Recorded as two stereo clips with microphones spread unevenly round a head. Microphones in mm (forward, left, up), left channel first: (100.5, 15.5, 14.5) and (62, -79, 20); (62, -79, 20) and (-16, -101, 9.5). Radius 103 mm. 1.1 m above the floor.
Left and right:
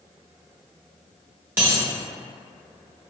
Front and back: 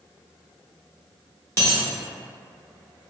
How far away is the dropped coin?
About 0.8 m.